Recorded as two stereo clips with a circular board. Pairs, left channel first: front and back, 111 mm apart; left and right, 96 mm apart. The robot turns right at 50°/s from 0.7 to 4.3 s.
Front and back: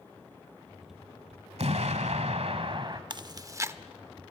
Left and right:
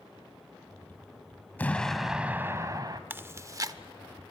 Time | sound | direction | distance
1.6 | an explosion | 160° left | 1.4 m
3.1 | chewing | 150° right | 0.7 m